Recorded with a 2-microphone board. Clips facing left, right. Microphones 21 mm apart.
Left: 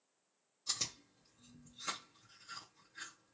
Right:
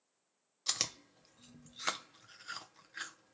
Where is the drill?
I don't hear a drill.